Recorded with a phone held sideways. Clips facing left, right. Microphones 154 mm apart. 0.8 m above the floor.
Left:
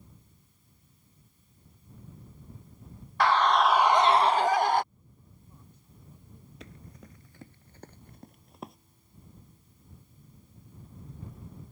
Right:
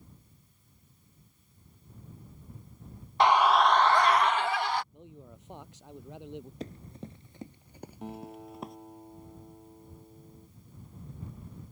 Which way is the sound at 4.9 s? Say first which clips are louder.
Right 11 dB; 90° right.